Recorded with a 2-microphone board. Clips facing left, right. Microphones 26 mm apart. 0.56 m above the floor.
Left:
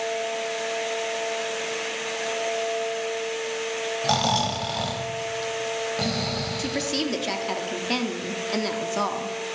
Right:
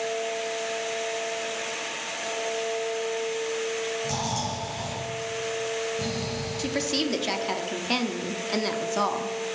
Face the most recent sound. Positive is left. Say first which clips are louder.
# right 2 dB
turn(degrees=0)  # may be behind; listen again after turning